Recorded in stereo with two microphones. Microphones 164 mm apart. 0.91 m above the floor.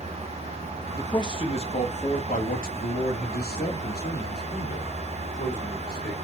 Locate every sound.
0.9 s a man speaking: 20° left (ahead or behind), 1.5 m; by 6.2 s 70° left (ahead or behind), 3.5 m